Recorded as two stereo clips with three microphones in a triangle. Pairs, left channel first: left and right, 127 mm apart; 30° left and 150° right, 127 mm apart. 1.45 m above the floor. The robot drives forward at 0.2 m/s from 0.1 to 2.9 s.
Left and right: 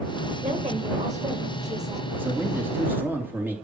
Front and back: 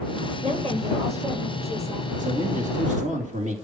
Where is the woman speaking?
115° right, 7 m.